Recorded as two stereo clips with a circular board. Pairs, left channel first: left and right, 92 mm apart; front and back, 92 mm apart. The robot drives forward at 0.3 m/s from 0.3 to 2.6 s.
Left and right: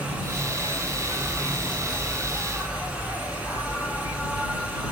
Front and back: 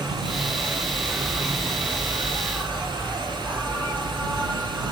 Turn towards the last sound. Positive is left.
turn(degrees=145)